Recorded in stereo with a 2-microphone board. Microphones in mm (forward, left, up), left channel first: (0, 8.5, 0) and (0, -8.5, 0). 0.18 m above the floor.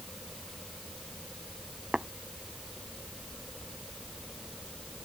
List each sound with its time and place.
1.9 s tapping: 70° right (ahead or behind)